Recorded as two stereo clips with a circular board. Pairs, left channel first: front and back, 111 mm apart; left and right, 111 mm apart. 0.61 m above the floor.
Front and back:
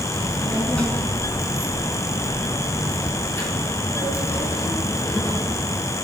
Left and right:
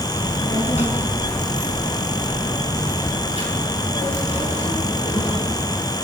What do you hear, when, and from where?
0.1 s a child speaking: 80° left, 5 m; by 5.7 s 65° left, 8 m